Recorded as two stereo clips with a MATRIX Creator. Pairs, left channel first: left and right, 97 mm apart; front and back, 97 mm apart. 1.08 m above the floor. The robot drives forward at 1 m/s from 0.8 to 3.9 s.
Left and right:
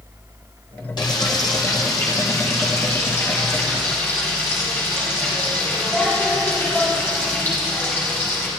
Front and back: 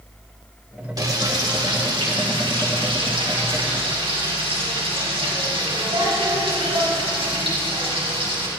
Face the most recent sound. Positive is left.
turn(degrees=160)